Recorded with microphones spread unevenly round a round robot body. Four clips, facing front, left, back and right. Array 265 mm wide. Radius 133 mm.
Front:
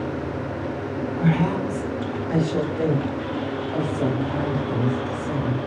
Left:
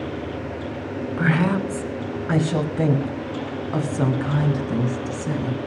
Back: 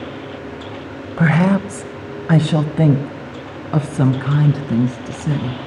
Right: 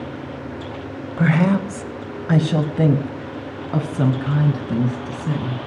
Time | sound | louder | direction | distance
1.2 | a woman speaking | right 4 dB, back 7 dB | 150° right | 1.6 m